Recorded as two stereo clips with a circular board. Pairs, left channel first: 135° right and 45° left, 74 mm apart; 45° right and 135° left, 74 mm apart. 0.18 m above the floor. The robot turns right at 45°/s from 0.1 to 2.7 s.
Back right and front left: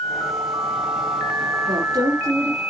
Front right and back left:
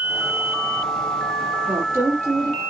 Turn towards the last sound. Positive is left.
turn(degrees=110)